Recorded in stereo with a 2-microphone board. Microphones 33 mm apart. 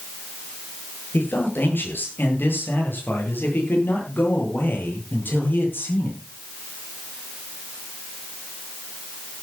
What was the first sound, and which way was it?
A man speaking, 80° left.